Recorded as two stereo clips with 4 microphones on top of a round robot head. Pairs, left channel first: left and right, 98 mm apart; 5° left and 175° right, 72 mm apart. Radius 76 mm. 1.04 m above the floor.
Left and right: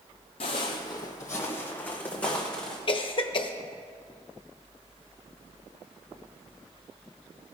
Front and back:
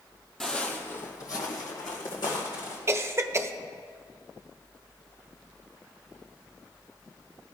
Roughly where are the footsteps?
Left.